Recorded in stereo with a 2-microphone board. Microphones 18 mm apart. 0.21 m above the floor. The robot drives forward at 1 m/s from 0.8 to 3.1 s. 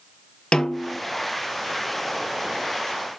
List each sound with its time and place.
0.5 s a snare drum: 55° left (ahead or behind), 0.9 m; by 1.0 s 70° left (ahead or behind), 0.8 m